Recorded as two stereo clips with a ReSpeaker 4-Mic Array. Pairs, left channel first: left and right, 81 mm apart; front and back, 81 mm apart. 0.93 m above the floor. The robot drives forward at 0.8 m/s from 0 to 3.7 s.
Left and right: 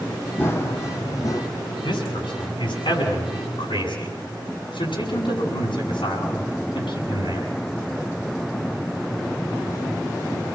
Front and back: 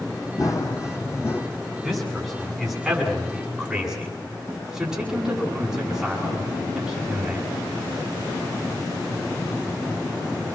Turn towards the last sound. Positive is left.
turn(degrees=95)